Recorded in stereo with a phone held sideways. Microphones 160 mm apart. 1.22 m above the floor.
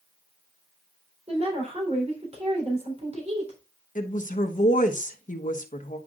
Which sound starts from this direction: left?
A woman speaking, at 4.0 s.